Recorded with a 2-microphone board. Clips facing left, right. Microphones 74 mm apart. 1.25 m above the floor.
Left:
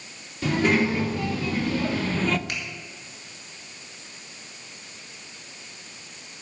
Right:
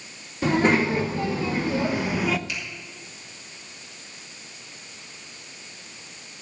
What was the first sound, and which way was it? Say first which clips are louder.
A child speaking: right 2 dB; 30° right (ahead or behind).